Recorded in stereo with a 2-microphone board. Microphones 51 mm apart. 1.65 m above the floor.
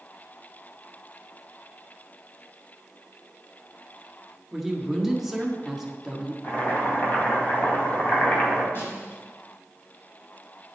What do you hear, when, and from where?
4.5 s a man speaking: 5° right (ahead or behind), 1.6 m
6.4 s boiling: 35° left (ahead or behind), 2.5 m
8.8 s a snare drum: 50° left (ahead or behind), 4 m